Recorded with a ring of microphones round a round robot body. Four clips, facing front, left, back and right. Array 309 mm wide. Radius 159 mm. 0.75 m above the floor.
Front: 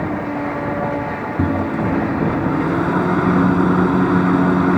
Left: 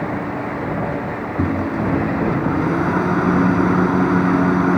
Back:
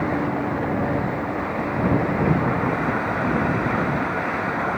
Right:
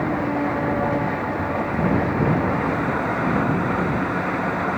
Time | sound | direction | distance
1.4 | a microwave | 35° left | ?